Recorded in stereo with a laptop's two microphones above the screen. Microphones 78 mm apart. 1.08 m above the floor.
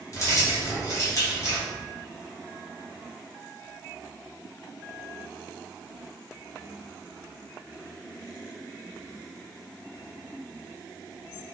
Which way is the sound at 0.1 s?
45° left (ahead or behind).